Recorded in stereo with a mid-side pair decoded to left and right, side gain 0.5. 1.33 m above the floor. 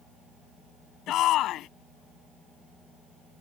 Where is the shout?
70° left.